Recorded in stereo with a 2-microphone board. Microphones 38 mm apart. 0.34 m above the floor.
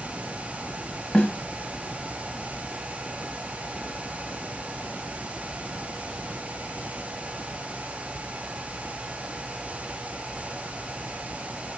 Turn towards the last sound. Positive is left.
turn(degrees=20)  # may be behind; listen again after turning